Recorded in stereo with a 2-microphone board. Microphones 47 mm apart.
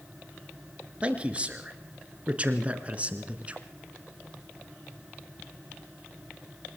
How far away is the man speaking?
About 2.5 m.